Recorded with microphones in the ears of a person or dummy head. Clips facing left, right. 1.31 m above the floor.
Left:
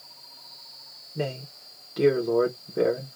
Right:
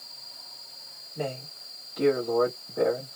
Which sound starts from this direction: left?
A man speaking, at 1.1 s.